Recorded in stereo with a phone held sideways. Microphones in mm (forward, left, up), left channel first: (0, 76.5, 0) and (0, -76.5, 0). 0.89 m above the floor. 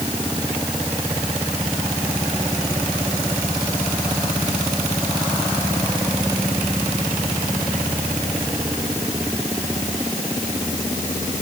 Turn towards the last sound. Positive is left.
No sound to turn to.